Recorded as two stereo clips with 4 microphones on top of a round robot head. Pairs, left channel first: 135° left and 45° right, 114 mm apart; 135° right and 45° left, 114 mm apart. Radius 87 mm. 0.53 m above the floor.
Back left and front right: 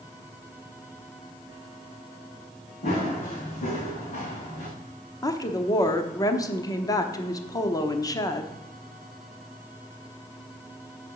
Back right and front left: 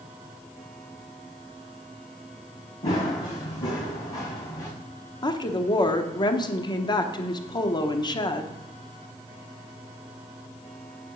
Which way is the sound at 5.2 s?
175° right.